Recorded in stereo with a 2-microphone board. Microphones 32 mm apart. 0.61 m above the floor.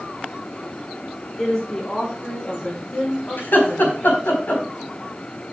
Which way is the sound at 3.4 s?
80° left.